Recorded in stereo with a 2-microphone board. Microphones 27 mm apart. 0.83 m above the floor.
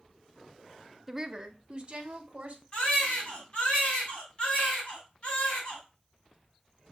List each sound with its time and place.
1.1 s a woman speaking: 10° right (ahead or behind), 0.7 m; by 2.6 s 40° right (ahead or behind), 2 m
2.7 s a baby crying: 40° left (ahead or behind), 4 m